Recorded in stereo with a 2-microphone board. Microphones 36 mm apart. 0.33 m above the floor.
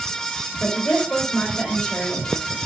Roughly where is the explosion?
I don't hear an explosion.